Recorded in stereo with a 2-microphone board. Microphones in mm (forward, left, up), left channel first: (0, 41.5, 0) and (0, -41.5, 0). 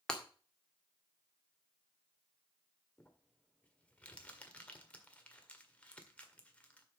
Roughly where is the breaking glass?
Centre.